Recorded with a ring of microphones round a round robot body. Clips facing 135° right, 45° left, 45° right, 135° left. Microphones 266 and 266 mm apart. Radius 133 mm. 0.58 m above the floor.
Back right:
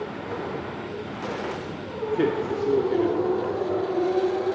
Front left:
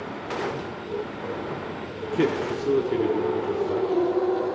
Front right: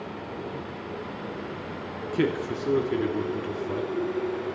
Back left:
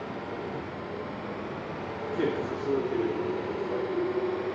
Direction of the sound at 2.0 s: 25° right.